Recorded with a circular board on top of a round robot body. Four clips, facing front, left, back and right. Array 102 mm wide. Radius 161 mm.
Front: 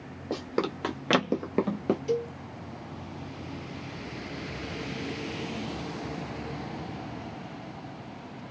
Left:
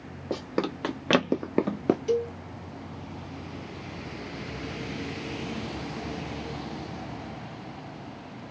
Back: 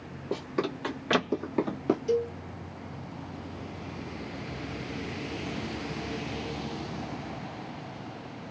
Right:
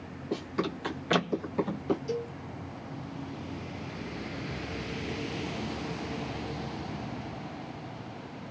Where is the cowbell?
75° left, 1.7 m.